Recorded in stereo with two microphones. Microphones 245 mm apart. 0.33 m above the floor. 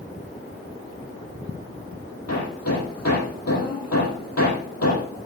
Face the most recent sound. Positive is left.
turn(degrees=85)